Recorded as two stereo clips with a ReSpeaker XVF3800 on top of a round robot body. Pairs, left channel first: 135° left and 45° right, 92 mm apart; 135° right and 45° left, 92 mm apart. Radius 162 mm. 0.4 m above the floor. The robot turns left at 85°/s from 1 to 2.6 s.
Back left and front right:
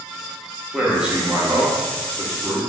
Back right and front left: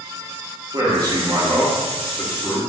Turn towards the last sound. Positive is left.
turn(degrees=-100)